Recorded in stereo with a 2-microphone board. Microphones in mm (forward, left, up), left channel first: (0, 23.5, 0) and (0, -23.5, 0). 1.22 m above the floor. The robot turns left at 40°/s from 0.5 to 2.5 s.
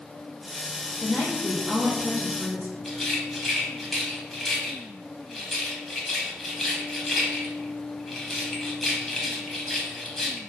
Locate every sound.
1.0 s a woman speaking: 30° left, 0.5 m; by 2.8 s 30° right, 0.5 m
2.9 s a rattle: centre (ahead or behind), 0.6 m